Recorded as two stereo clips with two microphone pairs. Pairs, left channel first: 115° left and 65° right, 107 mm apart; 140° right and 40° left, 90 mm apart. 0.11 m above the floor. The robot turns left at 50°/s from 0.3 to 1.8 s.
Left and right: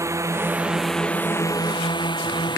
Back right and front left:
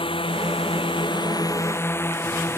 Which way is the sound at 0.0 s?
125° right.